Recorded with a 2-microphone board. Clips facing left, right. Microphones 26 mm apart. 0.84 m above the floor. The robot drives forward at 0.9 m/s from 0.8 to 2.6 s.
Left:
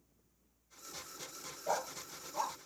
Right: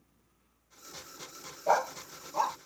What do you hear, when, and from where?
1.7 s a dog barking: 45° right (ahead or behind); by 2.6 s 30° right (ahead or behind)